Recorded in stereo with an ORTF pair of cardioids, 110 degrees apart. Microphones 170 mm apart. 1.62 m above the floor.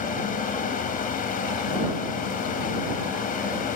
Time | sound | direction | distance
0.0 | a fan | 55° left | ?